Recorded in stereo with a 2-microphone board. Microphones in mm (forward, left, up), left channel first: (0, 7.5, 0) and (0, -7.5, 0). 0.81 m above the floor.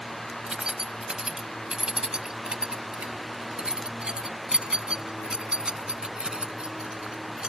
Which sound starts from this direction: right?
Keys jangling, at 0.5 s.